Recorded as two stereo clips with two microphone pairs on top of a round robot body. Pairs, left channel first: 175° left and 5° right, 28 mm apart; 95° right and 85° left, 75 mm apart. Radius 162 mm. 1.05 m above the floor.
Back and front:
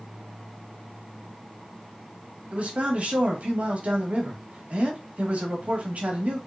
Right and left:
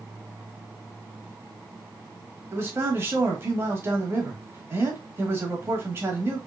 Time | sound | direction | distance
2.5 | a man speaking | 30° left | 1.6 m